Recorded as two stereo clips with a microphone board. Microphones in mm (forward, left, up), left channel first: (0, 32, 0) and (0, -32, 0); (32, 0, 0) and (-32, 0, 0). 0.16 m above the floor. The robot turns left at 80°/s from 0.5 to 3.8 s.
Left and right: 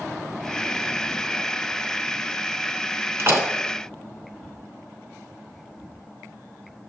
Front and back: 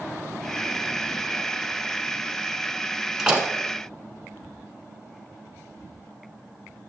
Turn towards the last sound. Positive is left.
turn(degrees=-150)